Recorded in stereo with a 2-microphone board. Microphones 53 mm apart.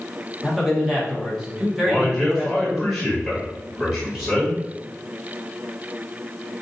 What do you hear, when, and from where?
0.4 s a man speaking: 5° right (ahead or behind), 1.3 m
1.8 s a man speaking: 5° right (ahead or behind), 2 m